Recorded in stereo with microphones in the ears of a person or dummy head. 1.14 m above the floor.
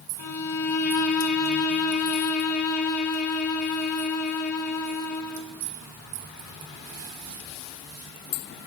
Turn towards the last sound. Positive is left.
turn(degrees=75)  # may be behind; listen again after turning